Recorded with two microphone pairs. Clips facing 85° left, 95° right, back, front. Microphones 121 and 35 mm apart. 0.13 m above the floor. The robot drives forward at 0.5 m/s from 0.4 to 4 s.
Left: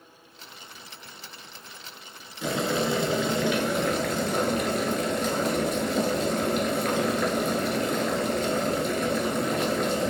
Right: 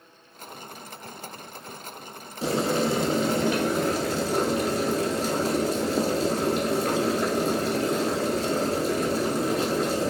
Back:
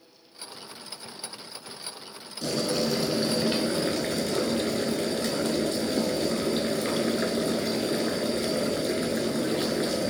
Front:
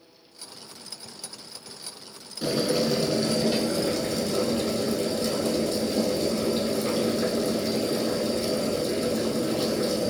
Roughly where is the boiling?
Ahead right.